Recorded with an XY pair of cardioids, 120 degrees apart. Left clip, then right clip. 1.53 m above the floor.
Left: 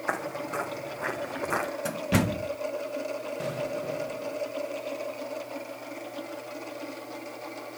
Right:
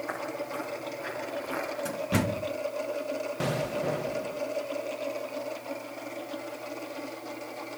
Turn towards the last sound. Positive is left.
turn(degrees=-40)